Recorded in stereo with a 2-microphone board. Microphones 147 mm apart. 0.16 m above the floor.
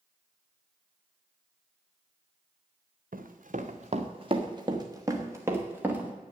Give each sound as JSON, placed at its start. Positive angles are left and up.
{"t": 3.1, "sound": "running footsteps", "side_deg": -70, "distance_m": 1.1}